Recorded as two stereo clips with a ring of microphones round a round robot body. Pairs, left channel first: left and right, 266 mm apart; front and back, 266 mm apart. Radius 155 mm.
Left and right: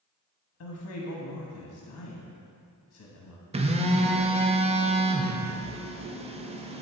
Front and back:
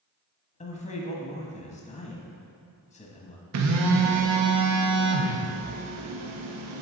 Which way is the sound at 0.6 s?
60° left.